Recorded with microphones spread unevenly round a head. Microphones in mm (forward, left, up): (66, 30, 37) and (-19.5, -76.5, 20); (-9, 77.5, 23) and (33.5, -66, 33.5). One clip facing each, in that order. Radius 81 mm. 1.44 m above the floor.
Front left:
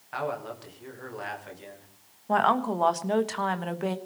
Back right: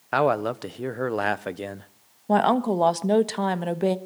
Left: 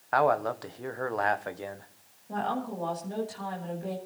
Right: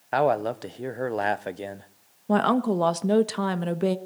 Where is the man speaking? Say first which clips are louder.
Back right 11 dB, right 2 dB; 140° right, 1.1 m.